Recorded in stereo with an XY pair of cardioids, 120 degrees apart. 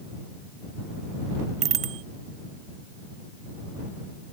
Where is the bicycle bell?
60° right.